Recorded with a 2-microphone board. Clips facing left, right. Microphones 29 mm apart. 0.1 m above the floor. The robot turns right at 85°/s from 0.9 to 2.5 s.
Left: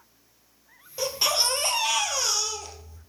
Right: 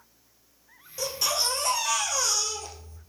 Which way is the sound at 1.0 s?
30° left.